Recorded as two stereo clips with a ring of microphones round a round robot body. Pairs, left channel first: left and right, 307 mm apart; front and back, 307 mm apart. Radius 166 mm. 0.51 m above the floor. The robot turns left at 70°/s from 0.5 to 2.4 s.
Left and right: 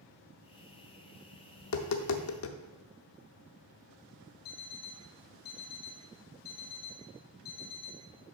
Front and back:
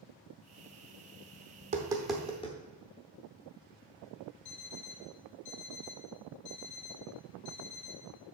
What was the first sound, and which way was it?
Tapping, 125° left.